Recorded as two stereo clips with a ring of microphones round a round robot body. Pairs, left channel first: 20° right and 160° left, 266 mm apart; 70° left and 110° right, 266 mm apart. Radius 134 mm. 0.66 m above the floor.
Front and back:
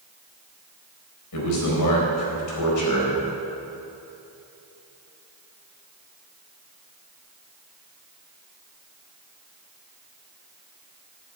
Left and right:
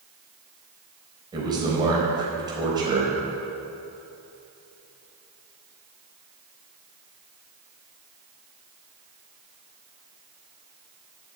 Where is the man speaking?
40° right, 4 m.